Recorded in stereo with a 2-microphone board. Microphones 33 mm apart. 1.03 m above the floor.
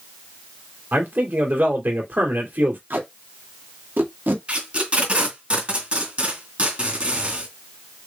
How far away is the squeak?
I don't hear a squeak.